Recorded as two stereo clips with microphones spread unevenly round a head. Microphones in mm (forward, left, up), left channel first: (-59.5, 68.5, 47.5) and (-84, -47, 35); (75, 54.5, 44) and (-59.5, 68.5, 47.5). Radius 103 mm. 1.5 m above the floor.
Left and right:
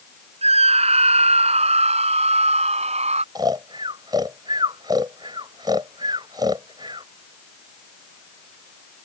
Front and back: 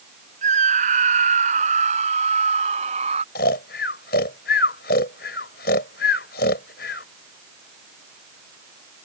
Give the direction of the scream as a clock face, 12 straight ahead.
4 o'clock.